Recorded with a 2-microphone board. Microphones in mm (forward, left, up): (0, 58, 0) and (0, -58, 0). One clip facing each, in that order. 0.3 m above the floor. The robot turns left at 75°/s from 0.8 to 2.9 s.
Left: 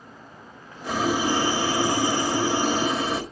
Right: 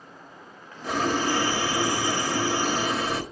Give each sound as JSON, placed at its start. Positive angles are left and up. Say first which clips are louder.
{"t": 0.8, "sound": "boiling", "louder": "left 1 dB", "side_deg": 0, "distance_m": 1.3}